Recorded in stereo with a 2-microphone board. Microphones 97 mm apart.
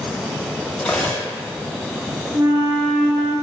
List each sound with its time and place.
0.8 s cutlery clinking: 15° left (ahead or behind), 1.2 m
2.3 s a flute: 35° right (ahead or behind), 1.4 m